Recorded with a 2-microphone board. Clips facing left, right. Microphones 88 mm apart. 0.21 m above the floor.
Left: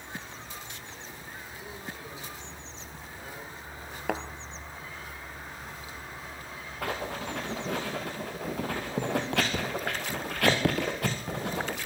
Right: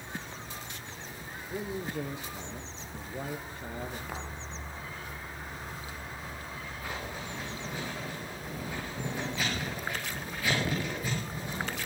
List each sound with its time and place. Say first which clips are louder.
1.5 s a man speaking: right 11 dB; 65° right (ahead or behind), 3 m
4.1 s a thud: left 8 dB; 75° left (ahead or behind), 1.4 m
6.8 s writing: left 8 dB; 75° left (ahead or behind), 4.5 m